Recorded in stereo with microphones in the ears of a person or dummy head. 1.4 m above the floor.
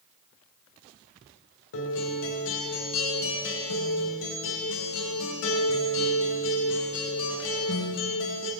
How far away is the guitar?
About 2.5 m.